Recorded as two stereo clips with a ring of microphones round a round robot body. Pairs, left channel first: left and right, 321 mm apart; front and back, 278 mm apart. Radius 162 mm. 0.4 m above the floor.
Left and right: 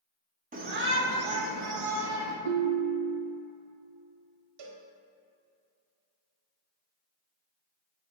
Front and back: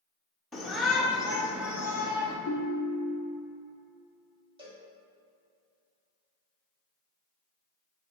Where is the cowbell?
105° right, 1.2 m.